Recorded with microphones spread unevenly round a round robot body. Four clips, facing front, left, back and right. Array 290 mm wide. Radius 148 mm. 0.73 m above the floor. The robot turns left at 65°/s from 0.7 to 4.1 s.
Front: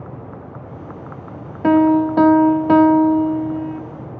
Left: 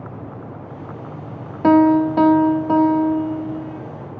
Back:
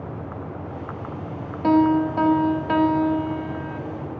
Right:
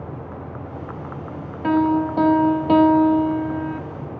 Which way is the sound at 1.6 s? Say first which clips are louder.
Left 6 dB, front 4 dB; 55° left.